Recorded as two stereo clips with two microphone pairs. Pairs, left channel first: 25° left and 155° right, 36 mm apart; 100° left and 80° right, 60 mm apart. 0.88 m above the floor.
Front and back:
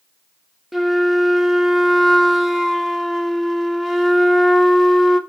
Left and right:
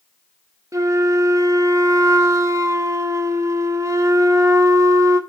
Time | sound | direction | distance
0.7 | a flute | 70° right | 1.3 m